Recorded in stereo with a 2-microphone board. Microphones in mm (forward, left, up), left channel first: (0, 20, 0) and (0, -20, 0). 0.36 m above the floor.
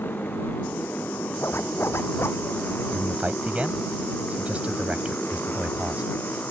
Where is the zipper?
90° left.